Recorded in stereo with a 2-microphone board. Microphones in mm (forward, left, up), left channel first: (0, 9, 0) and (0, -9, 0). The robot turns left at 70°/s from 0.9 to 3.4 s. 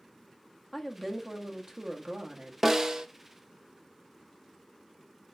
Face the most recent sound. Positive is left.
turn(degrees=-70)